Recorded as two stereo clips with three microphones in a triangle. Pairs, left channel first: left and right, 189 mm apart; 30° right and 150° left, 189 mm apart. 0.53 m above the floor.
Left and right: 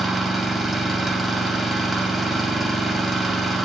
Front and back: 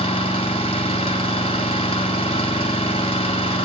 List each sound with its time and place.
0.0 s an engine running: straight ahead, 1.1 m